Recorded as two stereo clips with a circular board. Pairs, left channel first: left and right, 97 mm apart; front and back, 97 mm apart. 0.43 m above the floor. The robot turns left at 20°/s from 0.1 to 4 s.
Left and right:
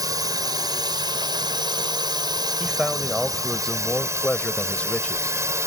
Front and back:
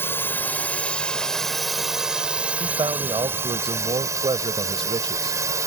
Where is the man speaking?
170° right; by 5.7 s 165° left.